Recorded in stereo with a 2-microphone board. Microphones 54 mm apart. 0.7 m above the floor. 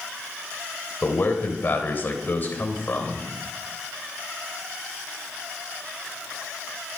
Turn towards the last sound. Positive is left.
turn(degrees=40)  # may be behind; listen again after turning